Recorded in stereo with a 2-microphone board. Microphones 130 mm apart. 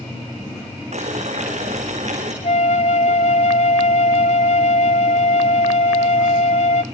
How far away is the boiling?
About 5 m.